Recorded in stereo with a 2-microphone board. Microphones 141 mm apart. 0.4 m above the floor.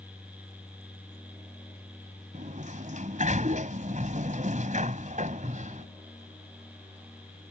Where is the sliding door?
60° right (ahead or behind).